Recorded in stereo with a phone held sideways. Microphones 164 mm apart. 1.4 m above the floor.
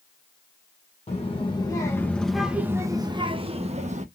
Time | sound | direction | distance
1.1 | a child speaking | 40° left (ahead or behind) | 1.1 m